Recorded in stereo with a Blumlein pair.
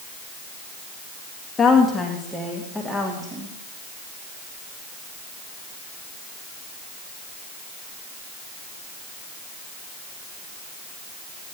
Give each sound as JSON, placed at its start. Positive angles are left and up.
{"t": 1.6, "sound": "a woman speaking", "azimuth_deg": 15, "distance_m": 2.0}